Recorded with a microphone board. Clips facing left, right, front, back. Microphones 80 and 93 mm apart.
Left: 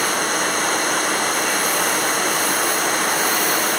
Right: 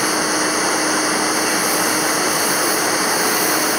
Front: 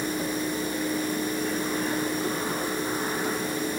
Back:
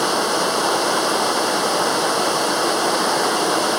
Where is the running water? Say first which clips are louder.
Right 2 dB, back 9 dB; 175° right.